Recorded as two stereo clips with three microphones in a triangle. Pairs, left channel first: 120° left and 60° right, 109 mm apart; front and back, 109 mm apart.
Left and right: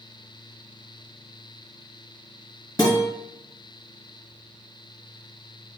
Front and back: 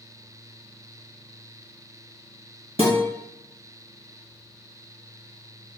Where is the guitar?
175° left, 1.4 m.